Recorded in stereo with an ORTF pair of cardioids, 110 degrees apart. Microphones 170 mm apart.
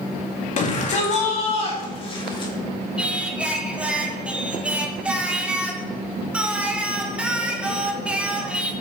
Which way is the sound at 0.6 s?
45° left.